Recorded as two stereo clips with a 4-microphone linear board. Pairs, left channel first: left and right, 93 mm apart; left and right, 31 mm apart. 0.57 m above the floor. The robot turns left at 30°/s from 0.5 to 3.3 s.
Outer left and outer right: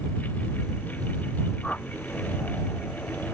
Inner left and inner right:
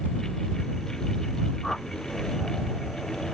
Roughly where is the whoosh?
Centre.